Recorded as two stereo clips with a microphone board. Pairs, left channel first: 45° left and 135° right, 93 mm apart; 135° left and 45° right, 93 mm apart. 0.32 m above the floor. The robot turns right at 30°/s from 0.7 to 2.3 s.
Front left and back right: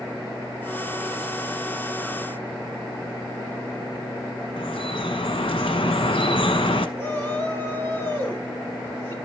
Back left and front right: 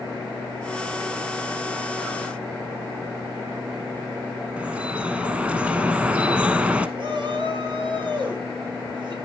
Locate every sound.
4.6 s dripping: 30° left, 0.9 m
7.0 s a shout: 20° right, 4 m